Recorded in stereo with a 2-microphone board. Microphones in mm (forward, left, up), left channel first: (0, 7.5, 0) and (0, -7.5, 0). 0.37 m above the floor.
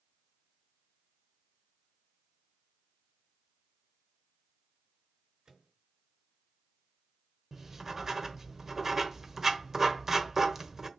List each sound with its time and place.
5.5 s a microwave: 65° right (ahead or behind), 4 m
7.5 s writing: 25° right (ahead or behind), 1.1 m